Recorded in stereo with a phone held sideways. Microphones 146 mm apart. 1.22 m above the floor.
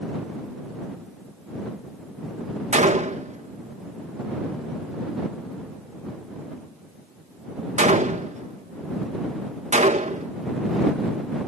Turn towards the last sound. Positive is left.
turn(degrees=-55)  # may be behind; listen again after turning